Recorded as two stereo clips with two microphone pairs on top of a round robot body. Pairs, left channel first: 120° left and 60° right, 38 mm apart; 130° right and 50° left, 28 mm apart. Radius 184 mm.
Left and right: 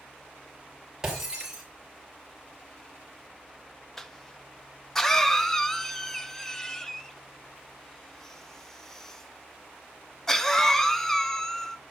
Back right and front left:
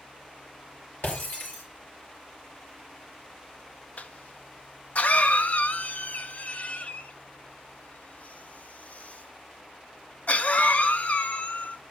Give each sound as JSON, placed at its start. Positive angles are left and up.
{"t": 1.0, "sound": "breaking glass", "azimuth_deg": -140, "distance_m": 5.5}
{"t": 4.0, "sound": "a cough", "azimuth_deg": -165, "distance_m": 1.2}